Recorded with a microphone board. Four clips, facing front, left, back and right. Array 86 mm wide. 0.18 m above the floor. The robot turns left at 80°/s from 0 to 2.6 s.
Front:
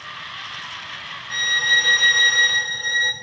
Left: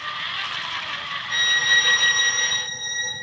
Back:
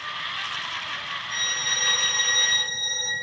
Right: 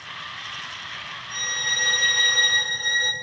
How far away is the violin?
About 1.8 m.